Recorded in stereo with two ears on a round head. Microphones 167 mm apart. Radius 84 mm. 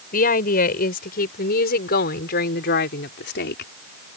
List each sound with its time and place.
0.1 s a woman speaking: 50° left (ahead or behind); by 3.7 s 65° left (ahead or behind)